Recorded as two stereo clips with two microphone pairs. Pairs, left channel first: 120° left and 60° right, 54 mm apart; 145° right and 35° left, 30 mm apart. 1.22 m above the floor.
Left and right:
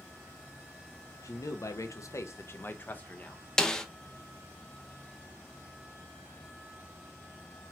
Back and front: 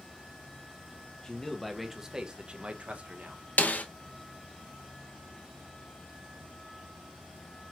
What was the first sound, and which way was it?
A man speaking, 145° left.